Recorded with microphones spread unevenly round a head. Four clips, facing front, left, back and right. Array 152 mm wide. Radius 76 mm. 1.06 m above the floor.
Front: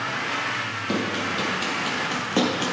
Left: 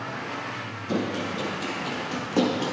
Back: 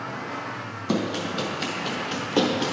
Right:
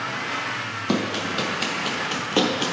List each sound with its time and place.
0.9 s running footsteps: 95° right, 1.6 m; by 2.7 s 15° right, 1.0 m